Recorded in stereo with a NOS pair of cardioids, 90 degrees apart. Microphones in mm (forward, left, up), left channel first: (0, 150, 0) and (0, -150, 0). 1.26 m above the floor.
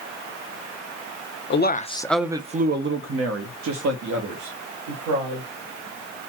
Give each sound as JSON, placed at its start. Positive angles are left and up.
{"t": 1.5, "sound": "a man speaking", "azimuth_deg": 40, "distance_m": 0.6}